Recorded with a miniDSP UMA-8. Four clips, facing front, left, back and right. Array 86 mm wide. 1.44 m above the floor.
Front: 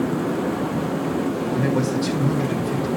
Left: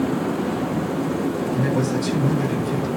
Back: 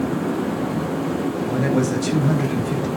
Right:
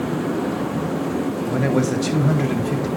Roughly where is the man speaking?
Behind right.